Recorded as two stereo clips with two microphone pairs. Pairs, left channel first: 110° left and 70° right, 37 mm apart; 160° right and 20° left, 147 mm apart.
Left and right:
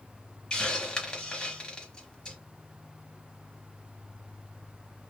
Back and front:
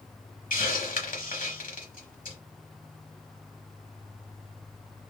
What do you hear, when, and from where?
0.5 s a hiss: straight behind, 0.9 m